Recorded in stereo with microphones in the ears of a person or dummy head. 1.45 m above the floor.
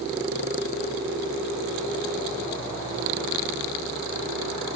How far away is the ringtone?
I don't hear a ringtone.